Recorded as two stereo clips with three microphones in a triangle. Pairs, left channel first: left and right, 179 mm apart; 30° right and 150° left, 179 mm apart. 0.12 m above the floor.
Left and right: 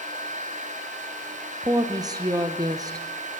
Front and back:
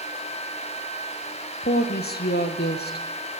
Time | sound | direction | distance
1.6 | a woman speaking | 25° right | 3 m